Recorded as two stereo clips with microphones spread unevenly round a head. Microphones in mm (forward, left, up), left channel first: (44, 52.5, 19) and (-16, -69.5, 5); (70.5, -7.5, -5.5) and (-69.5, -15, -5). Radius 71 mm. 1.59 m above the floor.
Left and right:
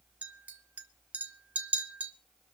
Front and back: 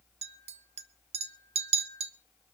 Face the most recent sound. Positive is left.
turn(degrees=160)